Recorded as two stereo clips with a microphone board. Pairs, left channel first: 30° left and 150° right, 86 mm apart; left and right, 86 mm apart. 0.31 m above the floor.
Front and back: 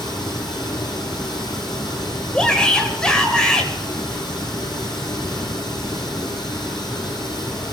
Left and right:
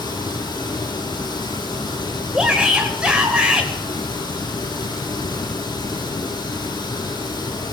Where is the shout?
30° right, 1.5 m.